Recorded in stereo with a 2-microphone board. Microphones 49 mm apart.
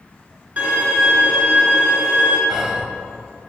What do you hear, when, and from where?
0.6 s a violin: 30° right (ahead or behind), 2.5 m
2.5 s whispering: 15° right (ahead or behind), 0.9 m